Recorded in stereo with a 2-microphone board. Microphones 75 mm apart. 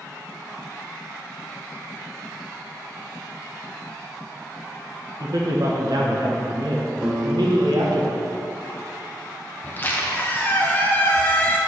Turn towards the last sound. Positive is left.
turn(degrees=25)  # may be behind; listen again after turning